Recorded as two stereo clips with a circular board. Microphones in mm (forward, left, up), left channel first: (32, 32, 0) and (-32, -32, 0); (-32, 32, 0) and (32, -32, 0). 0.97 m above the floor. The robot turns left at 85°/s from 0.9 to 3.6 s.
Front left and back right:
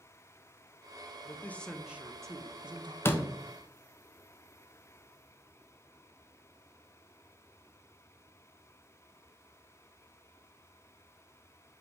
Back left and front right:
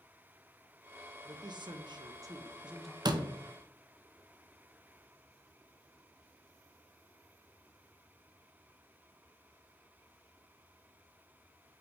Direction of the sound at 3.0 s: 10° right.